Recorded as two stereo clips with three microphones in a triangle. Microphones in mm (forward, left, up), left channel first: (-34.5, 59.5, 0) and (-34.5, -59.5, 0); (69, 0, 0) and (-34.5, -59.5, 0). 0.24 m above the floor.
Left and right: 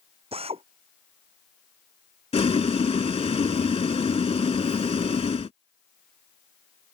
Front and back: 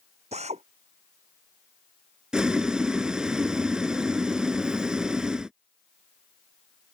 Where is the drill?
125° right.